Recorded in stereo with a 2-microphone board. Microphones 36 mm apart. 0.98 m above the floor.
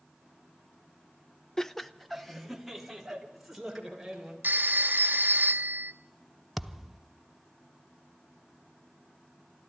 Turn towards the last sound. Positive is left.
turn(degrees=0)  # may be behind; listen again after turning